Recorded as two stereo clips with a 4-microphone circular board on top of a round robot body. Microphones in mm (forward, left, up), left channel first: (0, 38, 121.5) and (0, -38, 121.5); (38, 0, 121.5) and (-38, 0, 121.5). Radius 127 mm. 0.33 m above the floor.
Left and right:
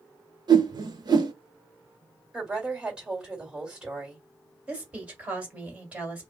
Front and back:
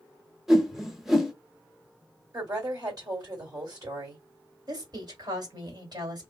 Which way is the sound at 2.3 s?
160° right.